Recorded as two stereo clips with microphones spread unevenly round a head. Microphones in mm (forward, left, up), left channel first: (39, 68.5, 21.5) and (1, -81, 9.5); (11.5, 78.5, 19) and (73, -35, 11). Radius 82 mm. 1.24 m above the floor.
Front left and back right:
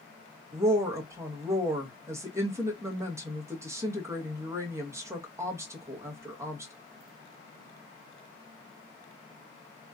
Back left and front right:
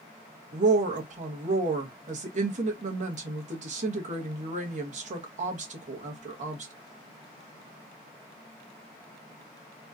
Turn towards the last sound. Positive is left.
turn(degrees=-30)